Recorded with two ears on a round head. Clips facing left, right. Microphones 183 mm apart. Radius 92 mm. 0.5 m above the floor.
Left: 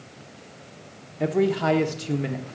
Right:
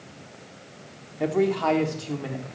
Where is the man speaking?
Centre (ahead or behind), 1.0 m; by 2.4 s 25° left (ahead or behind), 0.9 m.